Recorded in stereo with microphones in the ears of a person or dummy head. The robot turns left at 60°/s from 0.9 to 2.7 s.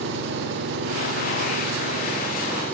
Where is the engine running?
80° right, 8 m; by 2.7 s 170° left, 8 m.